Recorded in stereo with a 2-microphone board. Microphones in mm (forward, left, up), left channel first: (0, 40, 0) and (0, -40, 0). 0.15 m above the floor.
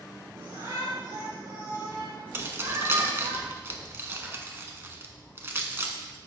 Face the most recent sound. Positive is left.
turn(degrees=-30)  # may be behind; listen again after turning